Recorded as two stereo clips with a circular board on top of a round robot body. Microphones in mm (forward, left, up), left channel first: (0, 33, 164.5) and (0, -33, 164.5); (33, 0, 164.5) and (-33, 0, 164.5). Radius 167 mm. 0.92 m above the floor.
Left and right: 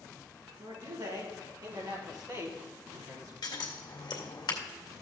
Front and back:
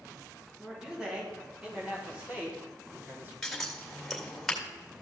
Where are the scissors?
85° left, 2 m.